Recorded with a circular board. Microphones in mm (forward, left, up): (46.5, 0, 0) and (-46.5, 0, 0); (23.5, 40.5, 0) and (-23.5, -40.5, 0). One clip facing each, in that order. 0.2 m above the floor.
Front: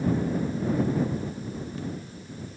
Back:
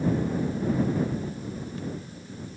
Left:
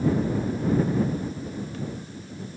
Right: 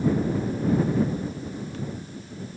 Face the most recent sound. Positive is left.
No sound to turn to.